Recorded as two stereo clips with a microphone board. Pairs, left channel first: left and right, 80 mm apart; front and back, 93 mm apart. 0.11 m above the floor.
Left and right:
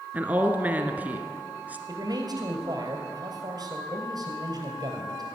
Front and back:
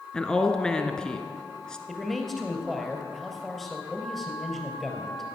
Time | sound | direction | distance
0.1 | a woman speaking | 70° right | 1.2 m
1.9 | a man speaking | 90° right | 2.5 m